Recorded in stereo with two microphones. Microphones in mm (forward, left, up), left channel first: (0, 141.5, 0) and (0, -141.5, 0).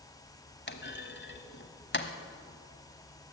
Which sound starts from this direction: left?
A clunk, at 0.7 s.